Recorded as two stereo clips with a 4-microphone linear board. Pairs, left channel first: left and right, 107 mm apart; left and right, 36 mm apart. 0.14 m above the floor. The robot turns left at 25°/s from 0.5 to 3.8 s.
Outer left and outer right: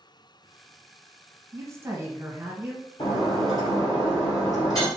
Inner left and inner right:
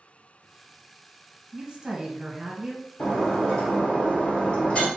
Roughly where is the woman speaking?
Right.